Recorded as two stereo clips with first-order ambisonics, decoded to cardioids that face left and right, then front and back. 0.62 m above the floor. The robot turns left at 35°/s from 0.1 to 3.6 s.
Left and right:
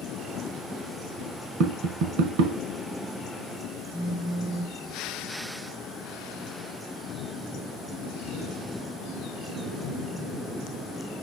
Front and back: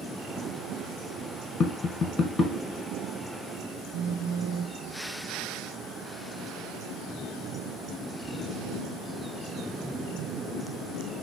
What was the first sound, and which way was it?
Tapping, 55° right.